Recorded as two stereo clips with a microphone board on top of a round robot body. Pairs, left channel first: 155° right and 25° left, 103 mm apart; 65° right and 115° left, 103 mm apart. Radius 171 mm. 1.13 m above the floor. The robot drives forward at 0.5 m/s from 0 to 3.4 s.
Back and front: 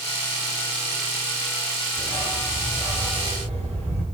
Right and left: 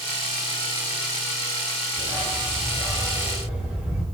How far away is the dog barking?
About 10 m.